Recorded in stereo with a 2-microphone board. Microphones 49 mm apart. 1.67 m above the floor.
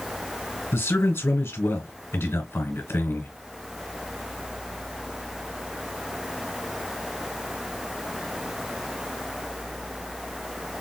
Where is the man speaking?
55° left (ahead or behind), 1.5 m.